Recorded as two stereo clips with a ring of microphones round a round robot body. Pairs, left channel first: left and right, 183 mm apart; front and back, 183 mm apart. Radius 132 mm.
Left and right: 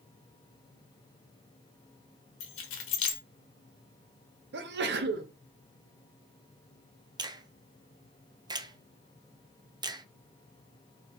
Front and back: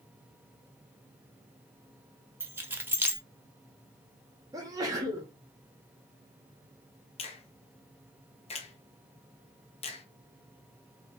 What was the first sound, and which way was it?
Keys jangling, 100° left.